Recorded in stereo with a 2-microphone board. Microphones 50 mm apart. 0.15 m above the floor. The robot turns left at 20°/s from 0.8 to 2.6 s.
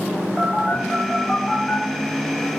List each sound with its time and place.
0.4 s a phone buzzing: 10° right (ahead or behind), 0.7 m; by 1.8 s 10° left (ahead or behind), 0.7 m